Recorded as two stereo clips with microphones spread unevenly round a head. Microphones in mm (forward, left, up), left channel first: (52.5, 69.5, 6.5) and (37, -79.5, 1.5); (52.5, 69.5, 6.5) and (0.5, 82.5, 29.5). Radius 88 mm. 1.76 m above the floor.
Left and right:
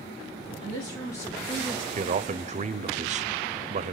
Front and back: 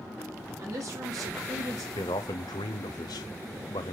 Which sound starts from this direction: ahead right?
A man speaking, at 1.9 s.